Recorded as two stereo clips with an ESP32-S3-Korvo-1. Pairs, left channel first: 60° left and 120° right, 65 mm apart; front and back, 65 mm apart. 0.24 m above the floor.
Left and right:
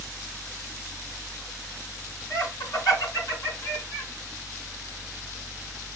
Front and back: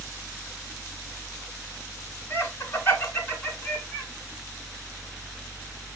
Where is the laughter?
45° left, 3.5 m; by 4.1 s 55° left, 3 m.